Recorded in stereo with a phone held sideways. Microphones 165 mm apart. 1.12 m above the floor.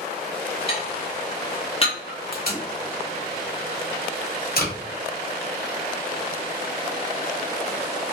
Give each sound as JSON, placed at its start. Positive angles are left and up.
{"t": 0.7, "sound": "dishes clattering", "side_deg": 35, "distance_m": 1.0}
{"t": 2.3, "sound": "tape being pulled", "side_deg": 65, "distance_m": 1.3}